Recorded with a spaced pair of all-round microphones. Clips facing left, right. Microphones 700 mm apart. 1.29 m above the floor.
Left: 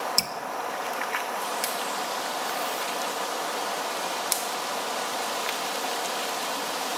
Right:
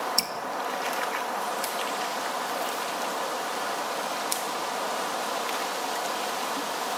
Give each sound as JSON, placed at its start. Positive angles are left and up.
{"t": 0.2, "sound": "dripping", "side_deg": 25, "distance_m": 1.5}